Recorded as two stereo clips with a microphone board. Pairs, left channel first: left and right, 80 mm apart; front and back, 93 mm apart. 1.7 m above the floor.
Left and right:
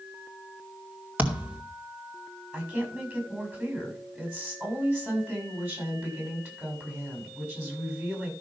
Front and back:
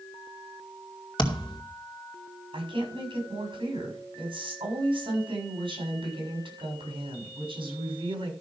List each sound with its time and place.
1.2 s a thud: 25° right, 2.5 m
2.5 s a woman speaking: 155° right, 7 m